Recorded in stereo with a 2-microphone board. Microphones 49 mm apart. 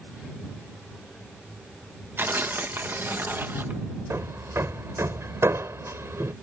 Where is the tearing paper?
50° right (ahead or behind).